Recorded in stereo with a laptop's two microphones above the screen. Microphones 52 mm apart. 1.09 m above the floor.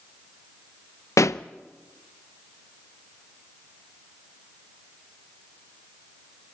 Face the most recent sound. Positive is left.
turn(degrees=75)  # may be behind; listen again after turning